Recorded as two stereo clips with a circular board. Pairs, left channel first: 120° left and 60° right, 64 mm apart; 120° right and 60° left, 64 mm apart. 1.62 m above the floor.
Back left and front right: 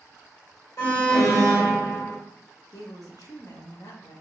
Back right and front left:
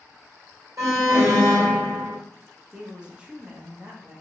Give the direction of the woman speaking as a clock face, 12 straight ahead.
7 o'clock.